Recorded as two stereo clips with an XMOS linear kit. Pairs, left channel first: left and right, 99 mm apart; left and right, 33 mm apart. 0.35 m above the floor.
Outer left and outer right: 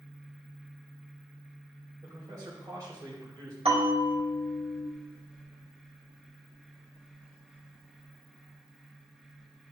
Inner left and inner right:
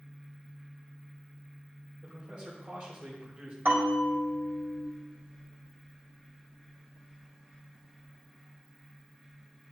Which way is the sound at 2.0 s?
40° right (ahead or behind).